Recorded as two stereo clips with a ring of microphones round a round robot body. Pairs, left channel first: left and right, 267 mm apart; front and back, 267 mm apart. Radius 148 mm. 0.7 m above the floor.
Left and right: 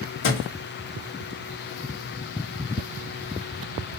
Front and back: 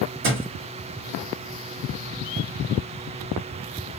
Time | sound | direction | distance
0.2 | a thud | 135° left | 1.5 m